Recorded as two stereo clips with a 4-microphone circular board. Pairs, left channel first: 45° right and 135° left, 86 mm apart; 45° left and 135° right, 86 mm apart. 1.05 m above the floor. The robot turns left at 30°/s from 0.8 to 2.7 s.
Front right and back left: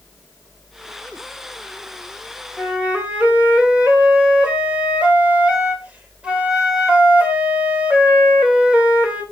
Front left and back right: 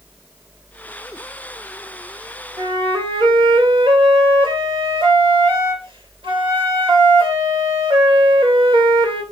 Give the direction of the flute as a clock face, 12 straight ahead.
5 o'clock.